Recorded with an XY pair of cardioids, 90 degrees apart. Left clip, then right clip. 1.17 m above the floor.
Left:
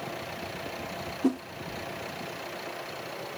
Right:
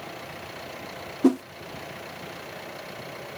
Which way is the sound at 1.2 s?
55° right.